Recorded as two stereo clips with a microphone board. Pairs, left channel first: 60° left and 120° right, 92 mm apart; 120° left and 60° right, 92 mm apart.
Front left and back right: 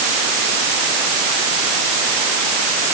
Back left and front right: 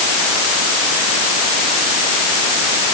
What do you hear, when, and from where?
Only background noise.